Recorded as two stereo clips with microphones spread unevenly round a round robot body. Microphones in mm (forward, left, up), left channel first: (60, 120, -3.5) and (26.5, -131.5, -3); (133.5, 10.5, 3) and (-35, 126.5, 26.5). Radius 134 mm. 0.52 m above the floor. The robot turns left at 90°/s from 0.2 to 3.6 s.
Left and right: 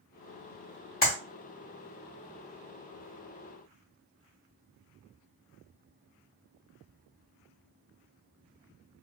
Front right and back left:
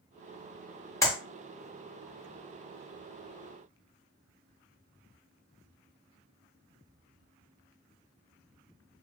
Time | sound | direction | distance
1.0 | a clap | 35° left | 1.3 m